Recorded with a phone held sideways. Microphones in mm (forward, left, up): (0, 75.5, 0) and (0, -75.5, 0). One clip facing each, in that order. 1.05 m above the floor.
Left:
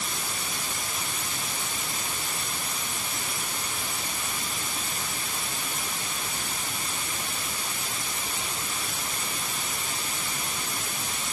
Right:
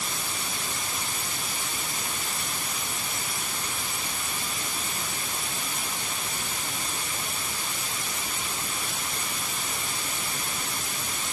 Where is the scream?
I don't hear a scream.